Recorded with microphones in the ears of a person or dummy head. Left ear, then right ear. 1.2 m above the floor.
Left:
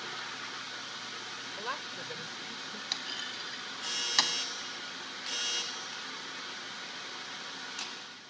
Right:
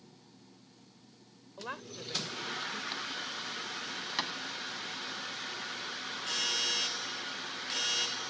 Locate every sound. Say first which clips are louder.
1.6 s a woman speaking: left 2 dB; 30° left (ahead or behind); by 2.8 s 50° left (ahead or behind)
2.9 s a clunk: left 1 dB; 40° left (ahead or behind)